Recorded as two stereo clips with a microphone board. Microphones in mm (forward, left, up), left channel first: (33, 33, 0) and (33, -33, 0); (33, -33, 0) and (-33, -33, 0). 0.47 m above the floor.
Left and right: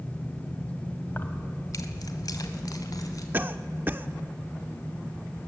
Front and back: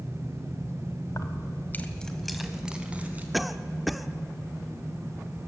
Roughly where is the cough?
Right.